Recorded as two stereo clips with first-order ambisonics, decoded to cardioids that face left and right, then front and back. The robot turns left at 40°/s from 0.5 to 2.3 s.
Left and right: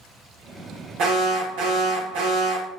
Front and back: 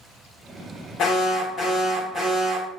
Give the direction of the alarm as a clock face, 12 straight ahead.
2 o'clock.